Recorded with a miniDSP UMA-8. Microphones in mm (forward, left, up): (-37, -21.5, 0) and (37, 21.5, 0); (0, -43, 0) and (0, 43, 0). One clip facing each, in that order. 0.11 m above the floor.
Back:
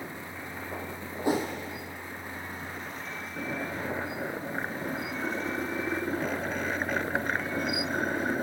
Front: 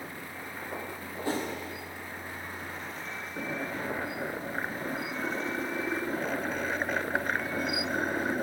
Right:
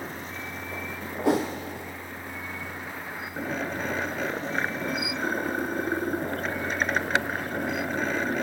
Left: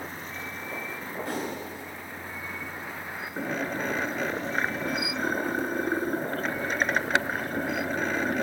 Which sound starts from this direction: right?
A whoosh, at 1.2 s.